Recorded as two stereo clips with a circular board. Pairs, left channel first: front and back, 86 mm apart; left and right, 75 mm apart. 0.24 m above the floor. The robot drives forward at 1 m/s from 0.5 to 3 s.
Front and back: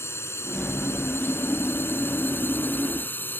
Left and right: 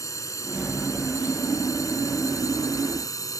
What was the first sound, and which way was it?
A drone, 55° left.